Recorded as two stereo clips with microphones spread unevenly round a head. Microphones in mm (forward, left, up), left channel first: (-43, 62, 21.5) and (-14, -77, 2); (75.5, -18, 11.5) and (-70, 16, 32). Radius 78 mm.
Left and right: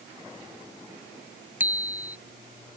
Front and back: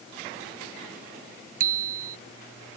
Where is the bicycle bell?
155° right.